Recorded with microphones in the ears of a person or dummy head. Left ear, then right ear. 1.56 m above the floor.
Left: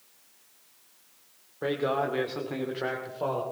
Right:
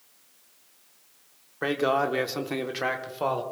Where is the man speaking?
65° right (ahead or behind), 1.6 m; by 3.4 s 55° right (ahead or behind), 2.0 m.